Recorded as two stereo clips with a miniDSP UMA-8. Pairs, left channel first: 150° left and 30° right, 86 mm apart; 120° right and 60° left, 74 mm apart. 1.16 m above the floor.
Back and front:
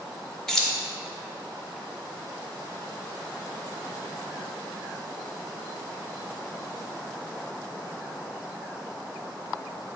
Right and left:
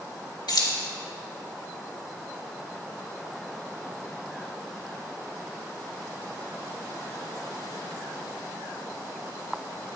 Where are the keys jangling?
125° right, 1.3 m.